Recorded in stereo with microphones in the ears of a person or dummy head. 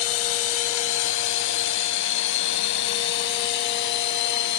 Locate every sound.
0.0 s a drone: 80° left; by 4.6 s 60° left (ahead or behind)